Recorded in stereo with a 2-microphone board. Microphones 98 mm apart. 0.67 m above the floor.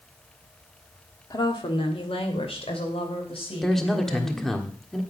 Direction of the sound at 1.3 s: 45° left (ahead or behind).